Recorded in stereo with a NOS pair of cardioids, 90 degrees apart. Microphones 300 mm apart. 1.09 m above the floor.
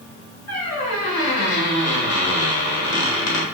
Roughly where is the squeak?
Ahead left.